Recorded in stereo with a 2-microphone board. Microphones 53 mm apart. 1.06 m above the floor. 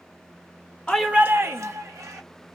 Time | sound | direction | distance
0.9 | a shout | 20° left (ahead or behind) | 0.5 m